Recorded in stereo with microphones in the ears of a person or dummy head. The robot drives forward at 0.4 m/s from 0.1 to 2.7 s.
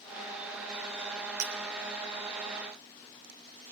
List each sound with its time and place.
1.4 s breaking glass: 65° right (ahead or behind), 2.5 m